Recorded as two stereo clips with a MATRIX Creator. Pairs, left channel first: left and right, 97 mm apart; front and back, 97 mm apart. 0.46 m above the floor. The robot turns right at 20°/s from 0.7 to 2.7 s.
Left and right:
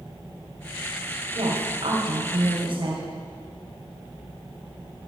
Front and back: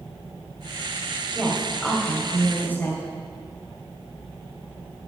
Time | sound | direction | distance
1.4 | a woman speaking | 95° right | 2.5 m